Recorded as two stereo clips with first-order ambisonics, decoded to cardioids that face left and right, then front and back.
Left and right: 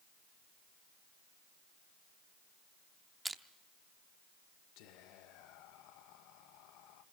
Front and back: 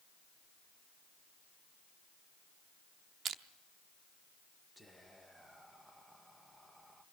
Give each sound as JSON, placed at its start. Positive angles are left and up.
{"t": 3.2, "sound": "crushing", "azimuth_deg": -165, "distance_m": 0.7}
{"t": 4.8, "sound": "whispering", "azimuth_deg": 95, "distance_m": 1.4}